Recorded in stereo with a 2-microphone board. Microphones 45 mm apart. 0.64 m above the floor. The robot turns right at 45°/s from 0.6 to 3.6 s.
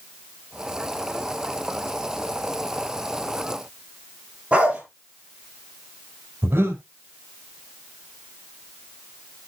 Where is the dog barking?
25° right (ahead or behind), 4.5 m.